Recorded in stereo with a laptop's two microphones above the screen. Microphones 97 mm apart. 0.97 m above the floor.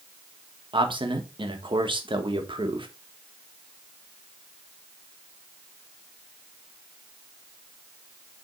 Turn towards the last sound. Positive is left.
turn(degrees=-55)  # may be behind; listen again after turning